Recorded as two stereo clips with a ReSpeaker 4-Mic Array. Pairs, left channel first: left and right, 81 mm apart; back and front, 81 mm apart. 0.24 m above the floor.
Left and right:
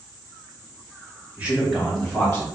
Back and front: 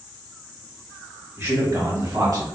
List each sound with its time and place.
1.4 s a man speaking: 35° right, 1.3 m; by 2.4 s 20° left, 1.9 m